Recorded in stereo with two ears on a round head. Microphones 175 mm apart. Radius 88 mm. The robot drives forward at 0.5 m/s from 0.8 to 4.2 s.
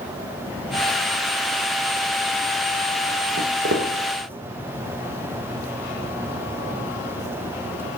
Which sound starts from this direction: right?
Footsteps, at 3.4 s.